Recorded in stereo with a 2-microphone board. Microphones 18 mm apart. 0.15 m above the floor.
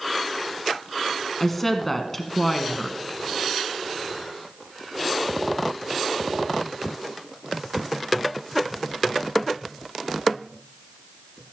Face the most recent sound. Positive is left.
turn(degrees=15)  # may be behind; listen again after turning